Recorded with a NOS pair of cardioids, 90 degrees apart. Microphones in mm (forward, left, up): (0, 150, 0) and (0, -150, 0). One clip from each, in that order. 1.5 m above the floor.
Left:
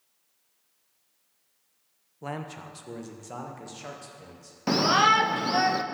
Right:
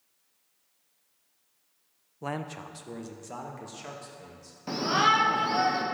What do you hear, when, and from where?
2.2 s a man speaking: 15° right, 0.7 m; by 4.6 s 15° left, 2.5 m
4.7 s a shout: 50° left, 0.8 m